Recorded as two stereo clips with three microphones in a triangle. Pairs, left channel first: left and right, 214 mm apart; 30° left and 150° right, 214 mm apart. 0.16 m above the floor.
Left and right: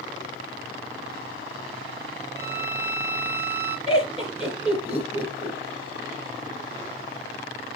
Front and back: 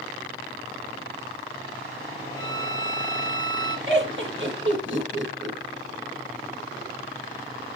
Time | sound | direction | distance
2.4 | a violin | 125° right | 4 m
3.9 | laughter | 145° right | 3 m